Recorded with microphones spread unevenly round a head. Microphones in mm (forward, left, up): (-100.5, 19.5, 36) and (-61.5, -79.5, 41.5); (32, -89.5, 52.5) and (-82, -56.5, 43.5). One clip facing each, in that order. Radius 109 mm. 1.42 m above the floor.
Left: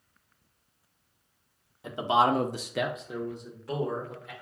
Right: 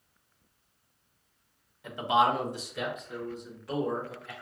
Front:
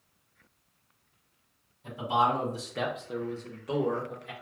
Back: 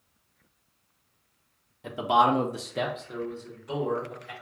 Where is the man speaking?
Straight behind, 0.9 m; by 4.3 s 35° left, 1.7 m.